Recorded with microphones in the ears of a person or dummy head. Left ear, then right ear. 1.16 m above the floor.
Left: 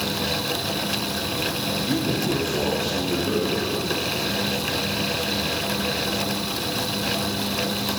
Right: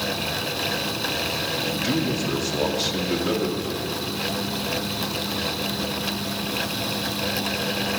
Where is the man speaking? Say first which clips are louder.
Even; 65° right (ahead or behind), 2 m.